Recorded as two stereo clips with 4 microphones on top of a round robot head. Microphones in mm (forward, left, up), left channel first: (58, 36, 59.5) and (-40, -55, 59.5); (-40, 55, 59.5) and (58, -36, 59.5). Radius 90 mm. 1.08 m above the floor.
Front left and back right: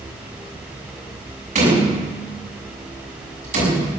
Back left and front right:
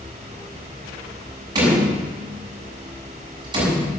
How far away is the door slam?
About 7 m.